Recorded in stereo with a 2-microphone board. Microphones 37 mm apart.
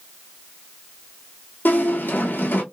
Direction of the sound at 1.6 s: 65° left (ahead or behind).